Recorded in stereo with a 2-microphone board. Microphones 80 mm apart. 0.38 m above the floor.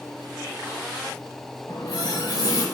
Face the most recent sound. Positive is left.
turn(degrees=55)  # may be behind; listen again after turning